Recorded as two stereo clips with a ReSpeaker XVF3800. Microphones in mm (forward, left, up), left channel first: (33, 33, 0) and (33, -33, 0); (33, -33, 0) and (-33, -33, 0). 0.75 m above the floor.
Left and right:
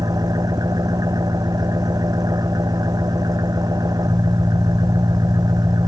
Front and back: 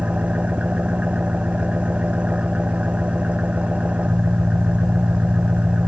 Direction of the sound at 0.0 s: 105° right.